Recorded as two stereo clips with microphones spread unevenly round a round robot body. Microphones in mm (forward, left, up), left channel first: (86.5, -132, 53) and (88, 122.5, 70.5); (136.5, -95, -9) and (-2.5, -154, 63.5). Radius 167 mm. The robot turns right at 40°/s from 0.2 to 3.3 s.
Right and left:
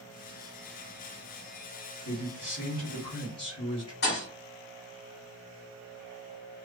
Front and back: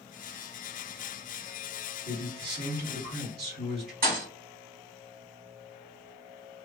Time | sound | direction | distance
2.0 | a man speaking | 160° left | 1.8 m
4.0 | a thud | 150° right | 1.1 m